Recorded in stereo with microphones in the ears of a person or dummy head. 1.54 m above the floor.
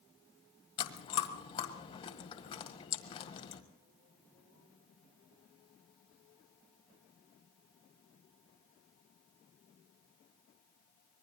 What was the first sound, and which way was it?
Chewing, 30° left (ahead or behind).